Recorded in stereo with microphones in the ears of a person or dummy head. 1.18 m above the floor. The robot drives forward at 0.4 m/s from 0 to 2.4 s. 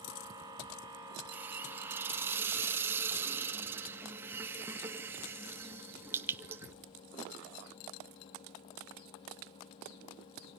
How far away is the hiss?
About 2 m.